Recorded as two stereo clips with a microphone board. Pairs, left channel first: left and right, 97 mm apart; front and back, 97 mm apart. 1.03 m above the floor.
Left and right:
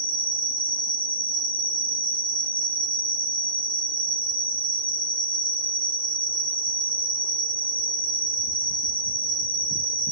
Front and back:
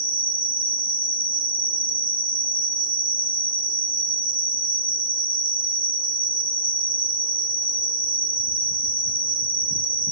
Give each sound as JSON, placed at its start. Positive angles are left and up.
{"t": 0.0, "sound": "an insect", "azimuth_deg": -110, "distance_m": 2.0}